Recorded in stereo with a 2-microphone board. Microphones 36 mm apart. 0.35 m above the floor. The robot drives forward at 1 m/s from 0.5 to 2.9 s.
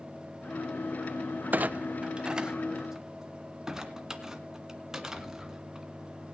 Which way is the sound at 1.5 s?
50° right (ahead or behind).